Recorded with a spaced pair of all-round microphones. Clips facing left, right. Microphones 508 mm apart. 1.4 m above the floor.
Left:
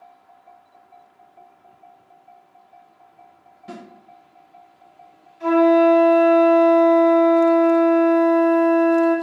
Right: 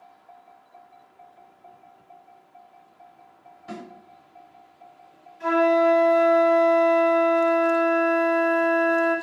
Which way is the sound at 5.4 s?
5° right (ahead or behind).